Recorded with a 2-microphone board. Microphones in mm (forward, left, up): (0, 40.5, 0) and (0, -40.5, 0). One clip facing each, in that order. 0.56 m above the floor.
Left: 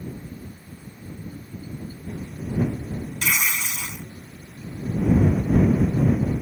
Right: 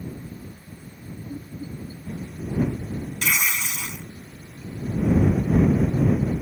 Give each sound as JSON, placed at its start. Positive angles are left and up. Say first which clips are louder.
{"t": 1.3, "sound": "laughter", "louder": "right 2 dB", "side_deg": -25}
{"t": 3.2, "sound": "tearing paper", "louder": "even", "side_deg": 10}